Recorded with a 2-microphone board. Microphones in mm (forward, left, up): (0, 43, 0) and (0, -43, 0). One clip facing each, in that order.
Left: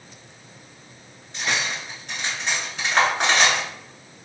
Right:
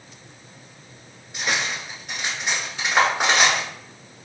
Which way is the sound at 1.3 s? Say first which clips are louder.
Even; 10° right (ahead or behind).